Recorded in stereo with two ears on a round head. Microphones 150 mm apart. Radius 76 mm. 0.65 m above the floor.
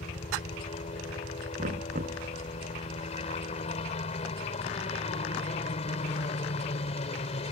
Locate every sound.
0.0 s a helicopter: 40° left (ahead or behind)
1.6 s knocking: 45° right (ahead or behind)